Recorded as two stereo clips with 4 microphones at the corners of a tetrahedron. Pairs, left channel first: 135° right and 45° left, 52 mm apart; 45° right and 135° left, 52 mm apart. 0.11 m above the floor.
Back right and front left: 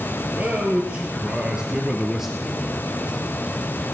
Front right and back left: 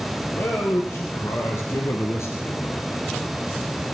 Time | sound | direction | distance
0.3 | a man speaking | 10° right | 3 m